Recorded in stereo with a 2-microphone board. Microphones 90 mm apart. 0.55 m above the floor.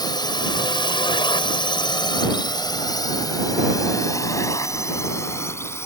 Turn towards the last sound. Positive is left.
turn(degrees=30)  # may be behind; listen again after turning